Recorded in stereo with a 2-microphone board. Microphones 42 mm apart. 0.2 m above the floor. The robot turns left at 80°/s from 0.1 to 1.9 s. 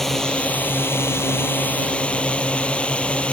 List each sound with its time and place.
0.0 s a drone: 175° left; by 3.3 s 30° left